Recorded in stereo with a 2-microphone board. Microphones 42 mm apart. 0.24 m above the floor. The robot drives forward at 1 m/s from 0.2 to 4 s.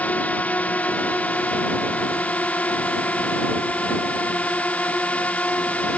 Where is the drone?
40° left (ahead or behind); by 6.0 s 35° left (ahead or behind).